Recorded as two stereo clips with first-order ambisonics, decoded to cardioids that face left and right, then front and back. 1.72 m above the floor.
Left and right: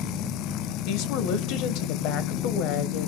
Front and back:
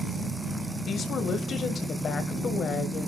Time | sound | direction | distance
0.9 | a woman speaking | 60° left | 1.5 m